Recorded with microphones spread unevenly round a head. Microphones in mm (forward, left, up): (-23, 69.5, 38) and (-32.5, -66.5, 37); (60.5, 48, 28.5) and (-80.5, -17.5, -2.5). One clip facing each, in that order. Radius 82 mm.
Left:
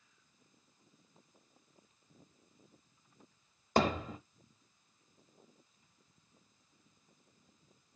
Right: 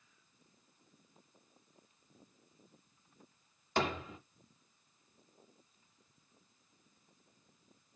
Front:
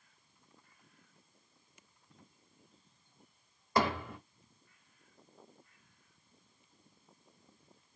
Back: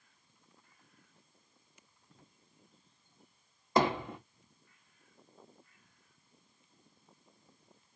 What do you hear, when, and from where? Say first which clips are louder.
3.8 s hammering: left 5 dB, back 3 dB; 135° left, 1.0 m